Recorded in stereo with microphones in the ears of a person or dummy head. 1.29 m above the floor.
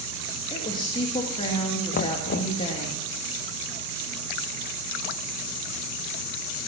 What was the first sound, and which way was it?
A woman speaking, 25° left (ahead or behind).